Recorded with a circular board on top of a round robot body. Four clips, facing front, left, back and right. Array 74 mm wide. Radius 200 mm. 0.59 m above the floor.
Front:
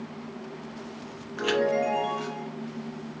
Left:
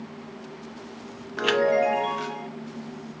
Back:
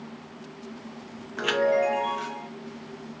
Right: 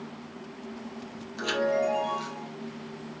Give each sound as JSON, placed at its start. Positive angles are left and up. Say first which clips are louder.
{"t": 1.4, "sound": "a chime", "louder": "left 5 dB, back 2 dB", "azimuth_deg": 105, "distance_m": 0.6}